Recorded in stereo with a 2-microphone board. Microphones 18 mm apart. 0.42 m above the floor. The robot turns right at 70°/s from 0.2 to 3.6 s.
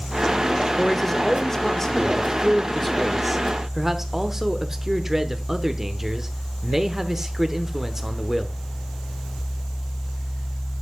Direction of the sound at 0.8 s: 15° left (ahead or behind).